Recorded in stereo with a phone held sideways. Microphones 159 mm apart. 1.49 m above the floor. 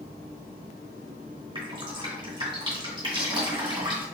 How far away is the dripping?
About 2 m.